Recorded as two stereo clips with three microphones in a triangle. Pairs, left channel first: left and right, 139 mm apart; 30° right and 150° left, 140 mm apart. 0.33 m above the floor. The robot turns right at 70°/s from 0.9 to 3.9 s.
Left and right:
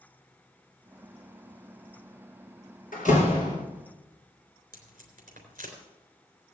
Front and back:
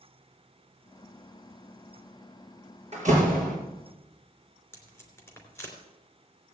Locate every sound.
2.9 s a door slam: 110° left, 5 m; by 3.5 s 155° left, 5 m
4.7 s tape being pulled: 100° right, 3.5 m